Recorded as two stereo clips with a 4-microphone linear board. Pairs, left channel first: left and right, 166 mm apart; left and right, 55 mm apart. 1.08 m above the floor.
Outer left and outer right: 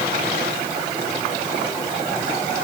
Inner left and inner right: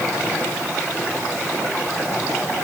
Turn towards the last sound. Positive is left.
No sound to turn to.